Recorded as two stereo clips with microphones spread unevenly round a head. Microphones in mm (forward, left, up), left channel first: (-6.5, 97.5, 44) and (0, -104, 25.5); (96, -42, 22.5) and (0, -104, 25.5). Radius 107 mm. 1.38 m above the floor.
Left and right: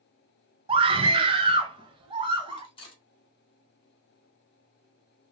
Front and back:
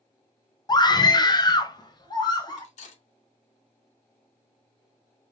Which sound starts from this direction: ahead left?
Cutlery clinking, at 2.6 s.